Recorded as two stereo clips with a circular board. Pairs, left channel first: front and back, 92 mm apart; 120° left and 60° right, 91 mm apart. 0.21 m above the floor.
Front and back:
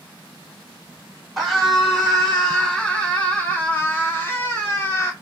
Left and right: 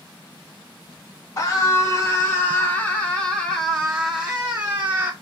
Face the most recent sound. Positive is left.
turn(degrees=-15)